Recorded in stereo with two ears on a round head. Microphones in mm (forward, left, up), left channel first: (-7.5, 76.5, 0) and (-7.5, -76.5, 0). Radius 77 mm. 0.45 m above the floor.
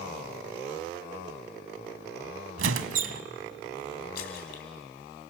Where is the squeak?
90° right, 1.1 m.